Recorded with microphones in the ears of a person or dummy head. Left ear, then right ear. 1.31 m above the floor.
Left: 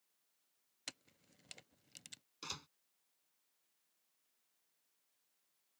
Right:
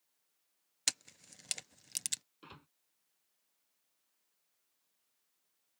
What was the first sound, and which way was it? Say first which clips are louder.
A camera shutter: right 15 dB; 55° right (ahead or behind).